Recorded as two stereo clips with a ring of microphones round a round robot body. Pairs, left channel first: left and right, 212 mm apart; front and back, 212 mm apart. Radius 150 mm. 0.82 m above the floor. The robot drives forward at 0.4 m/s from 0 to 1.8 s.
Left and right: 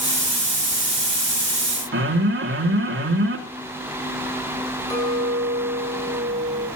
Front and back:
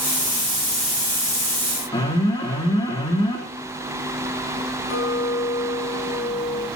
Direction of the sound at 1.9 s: 75° right.